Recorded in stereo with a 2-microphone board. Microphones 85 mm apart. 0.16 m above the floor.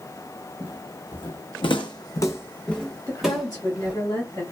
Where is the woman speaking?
35° left (ahead or behind), 1.3 m.